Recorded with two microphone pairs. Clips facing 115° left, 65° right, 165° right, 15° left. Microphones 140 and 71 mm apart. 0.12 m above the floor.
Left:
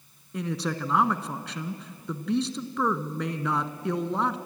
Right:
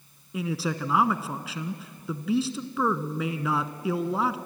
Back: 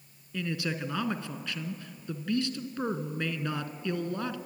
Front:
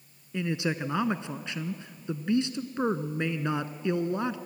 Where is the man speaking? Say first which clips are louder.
Right 1 dB, front 3 dB; 15° left, 1.2 m.